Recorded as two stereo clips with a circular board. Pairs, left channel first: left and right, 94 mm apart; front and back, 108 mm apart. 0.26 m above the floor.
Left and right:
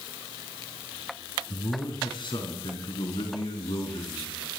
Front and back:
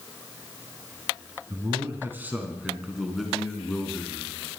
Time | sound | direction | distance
1.5 | a man speaking | 125° left | 3 m